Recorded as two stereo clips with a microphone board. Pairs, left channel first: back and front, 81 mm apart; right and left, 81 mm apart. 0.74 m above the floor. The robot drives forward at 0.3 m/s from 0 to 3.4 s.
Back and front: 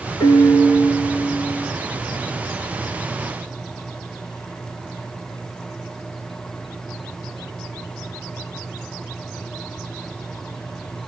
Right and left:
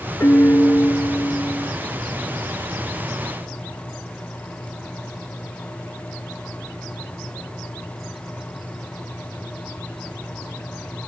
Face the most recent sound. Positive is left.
turn(degrees=-155)